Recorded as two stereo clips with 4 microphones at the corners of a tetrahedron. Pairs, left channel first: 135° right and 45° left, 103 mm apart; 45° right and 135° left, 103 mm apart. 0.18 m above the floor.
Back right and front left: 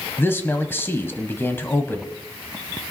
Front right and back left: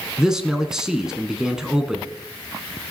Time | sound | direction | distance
0.2 | a man speaking | 155° right | 1.0 m